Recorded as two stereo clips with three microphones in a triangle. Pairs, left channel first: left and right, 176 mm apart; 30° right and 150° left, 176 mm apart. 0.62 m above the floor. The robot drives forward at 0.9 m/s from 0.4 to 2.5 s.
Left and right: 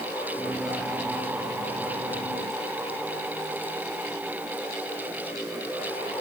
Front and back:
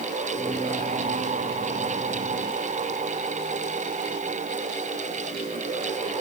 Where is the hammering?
No hammering in this recording.